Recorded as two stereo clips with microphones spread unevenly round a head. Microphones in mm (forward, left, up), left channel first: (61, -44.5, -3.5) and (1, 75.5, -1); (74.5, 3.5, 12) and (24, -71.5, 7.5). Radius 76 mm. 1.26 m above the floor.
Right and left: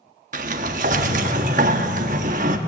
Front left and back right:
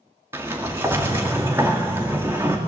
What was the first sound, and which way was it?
A sliding door, 160° left.